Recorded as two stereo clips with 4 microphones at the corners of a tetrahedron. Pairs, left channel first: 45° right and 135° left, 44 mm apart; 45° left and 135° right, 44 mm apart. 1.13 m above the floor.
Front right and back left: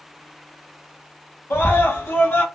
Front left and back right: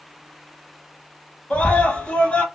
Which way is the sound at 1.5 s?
15° right.